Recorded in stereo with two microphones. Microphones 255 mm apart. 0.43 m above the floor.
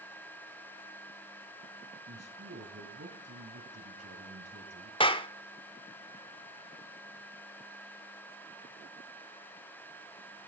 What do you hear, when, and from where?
2.1 s a man speaking: 70° right (ahead or behind), 2.5 m
5.0 s a clap: 20° left (ahead or behind), 0.7 m